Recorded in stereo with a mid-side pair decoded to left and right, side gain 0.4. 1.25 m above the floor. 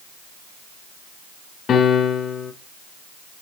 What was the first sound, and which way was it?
A piano, 65° left.